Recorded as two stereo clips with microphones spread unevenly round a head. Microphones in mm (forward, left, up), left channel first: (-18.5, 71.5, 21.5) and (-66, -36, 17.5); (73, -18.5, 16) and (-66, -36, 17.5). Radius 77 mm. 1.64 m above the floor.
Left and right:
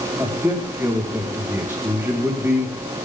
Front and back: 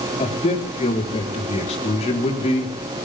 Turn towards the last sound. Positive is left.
turn(degrees=-40)